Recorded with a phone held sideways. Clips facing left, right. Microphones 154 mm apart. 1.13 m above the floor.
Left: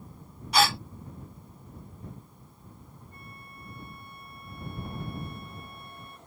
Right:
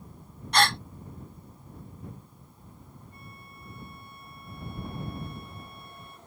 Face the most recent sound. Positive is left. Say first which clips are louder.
# left 1 dB
turn(degrees=50)  # may be behind; listen again after turning